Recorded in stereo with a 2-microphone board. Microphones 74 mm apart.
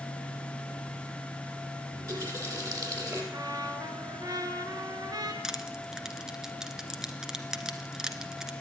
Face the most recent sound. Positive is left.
turn(degrees=-10)  # may be behind; listen again after turning